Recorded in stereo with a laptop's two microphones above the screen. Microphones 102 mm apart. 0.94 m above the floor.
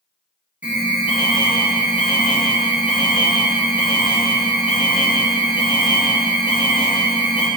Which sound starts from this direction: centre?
An alarm, at 0.6 s.